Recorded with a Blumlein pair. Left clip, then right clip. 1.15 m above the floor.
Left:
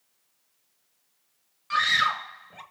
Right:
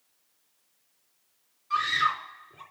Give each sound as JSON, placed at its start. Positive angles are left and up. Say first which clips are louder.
{"t": 1.7, "sound": "a scream", "louder": "left 3 dB", "azimuth_deg": 50, "distance_m": 2.0}